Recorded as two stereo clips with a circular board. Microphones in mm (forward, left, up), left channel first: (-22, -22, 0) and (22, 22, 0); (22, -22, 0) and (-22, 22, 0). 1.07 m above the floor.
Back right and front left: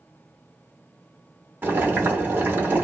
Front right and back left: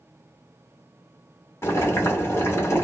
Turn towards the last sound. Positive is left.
turn(degrees=-10)